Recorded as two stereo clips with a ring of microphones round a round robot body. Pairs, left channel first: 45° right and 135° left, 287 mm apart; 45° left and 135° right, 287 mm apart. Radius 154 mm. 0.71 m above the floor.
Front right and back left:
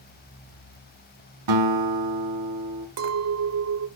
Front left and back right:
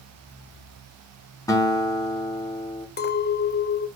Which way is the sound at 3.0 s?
100° left.